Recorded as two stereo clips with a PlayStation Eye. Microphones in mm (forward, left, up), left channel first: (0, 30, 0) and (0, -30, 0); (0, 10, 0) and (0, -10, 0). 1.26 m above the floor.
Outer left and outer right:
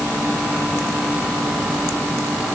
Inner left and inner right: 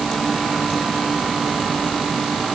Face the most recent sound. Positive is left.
No sound to turn to.